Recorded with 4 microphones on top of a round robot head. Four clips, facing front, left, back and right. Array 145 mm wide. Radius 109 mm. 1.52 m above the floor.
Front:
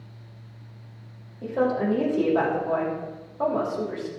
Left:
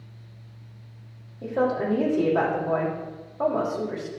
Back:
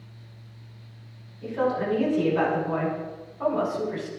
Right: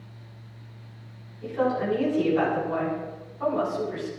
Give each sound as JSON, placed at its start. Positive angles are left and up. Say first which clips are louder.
{"t": 1.4, "sound": "a woman speaking", "louder": "left 1 dB, front 2 dB", "azimuth_deg": 55, "distance_m": 6.5}